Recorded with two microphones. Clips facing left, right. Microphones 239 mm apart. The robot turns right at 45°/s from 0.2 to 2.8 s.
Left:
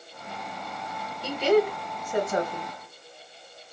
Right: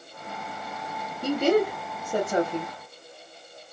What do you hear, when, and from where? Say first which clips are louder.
1.2 s a woman speaking: even; 50° right (ahead or behind), 1.6 m; by 2.7 s 15° right (ahead or behind), 1.6 m